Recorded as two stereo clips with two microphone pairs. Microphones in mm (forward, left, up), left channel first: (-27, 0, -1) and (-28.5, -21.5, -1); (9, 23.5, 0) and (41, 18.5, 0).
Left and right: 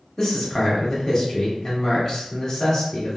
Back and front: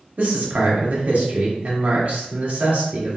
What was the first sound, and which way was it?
A man speaking, 20° left.